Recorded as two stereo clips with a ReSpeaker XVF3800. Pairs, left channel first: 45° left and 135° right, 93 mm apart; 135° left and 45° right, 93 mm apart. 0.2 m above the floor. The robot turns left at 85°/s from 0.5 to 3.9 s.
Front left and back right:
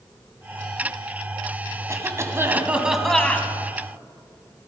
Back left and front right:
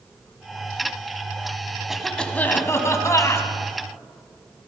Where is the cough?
125° right, 1.6 m; by 3.5 s 95° left, 1.6 m.